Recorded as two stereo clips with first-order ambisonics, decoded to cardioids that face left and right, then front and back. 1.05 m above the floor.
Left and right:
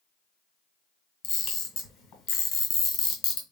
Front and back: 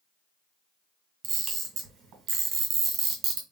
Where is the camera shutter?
135° left, 2 m.